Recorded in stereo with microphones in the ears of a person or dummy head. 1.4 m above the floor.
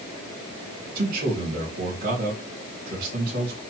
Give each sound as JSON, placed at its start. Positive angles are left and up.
{"t": 0.9, "sound": "a man speaking", "side_deg": -55, "distance_m": 2.0}